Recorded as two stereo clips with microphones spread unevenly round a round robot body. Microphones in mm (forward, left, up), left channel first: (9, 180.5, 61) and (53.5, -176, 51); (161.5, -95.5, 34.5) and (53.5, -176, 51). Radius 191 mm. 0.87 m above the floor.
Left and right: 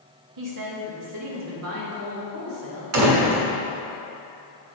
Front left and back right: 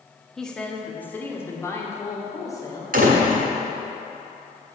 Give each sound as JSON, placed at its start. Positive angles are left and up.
{"t": 0.4, "sound": "a woman speaking", "azimuth_deg": -50, "distance_m": 1.6}
{"t": 2.9, "sound": "a door slam", "azimuth_deg": -135, "distance_m": 1.5}